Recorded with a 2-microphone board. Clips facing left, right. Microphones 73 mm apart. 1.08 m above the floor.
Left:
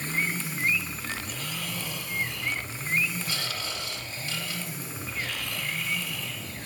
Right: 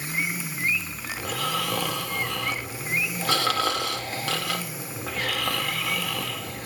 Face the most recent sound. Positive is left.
turn(degrees=-85)